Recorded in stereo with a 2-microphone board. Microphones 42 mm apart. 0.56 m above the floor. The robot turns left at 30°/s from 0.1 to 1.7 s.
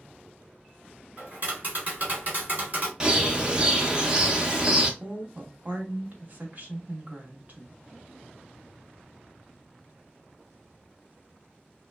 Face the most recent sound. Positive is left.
turn(degrees=-45)  # may be behind; listen again after turning